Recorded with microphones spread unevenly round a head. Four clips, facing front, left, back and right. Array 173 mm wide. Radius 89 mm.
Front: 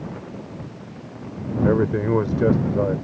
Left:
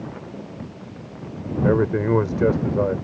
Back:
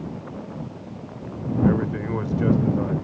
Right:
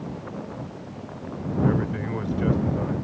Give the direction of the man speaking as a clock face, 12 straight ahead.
10 o'clock.